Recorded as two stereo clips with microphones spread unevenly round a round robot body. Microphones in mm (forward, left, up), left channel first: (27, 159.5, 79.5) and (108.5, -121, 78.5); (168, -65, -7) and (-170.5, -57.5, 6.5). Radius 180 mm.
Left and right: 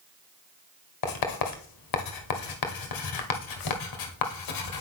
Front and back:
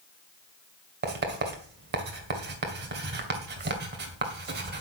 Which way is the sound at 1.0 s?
115° left.